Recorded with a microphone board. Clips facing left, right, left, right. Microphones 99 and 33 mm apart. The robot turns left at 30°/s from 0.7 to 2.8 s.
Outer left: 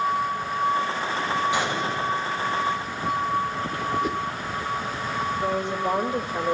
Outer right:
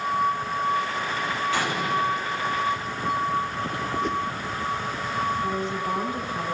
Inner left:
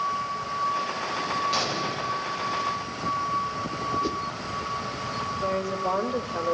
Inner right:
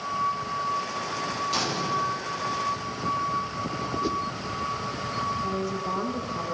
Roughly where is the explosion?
Centre.